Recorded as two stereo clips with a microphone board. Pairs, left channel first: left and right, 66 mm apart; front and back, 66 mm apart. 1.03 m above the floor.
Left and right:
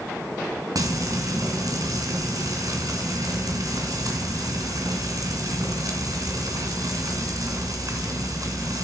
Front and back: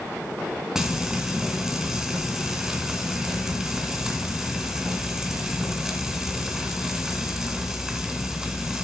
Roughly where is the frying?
Right.